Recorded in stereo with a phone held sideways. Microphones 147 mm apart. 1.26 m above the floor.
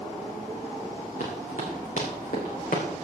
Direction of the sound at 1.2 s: 60° left (ahead or behind).